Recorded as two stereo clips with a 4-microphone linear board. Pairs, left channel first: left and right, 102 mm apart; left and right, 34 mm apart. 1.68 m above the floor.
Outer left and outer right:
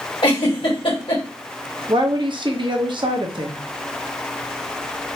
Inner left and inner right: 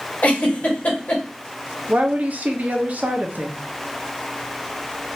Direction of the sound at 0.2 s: 55° left (ahead or behind).